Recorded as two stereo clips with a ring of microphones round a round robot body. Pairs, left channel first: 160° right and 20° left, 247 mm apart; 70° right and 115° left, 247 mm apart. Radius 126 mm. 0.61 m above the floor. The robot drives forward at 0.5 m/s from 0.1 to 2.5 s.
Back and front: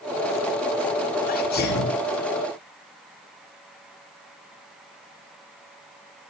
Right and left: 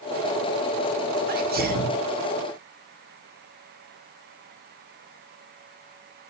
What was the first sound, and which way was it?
A sneeze, 155° left.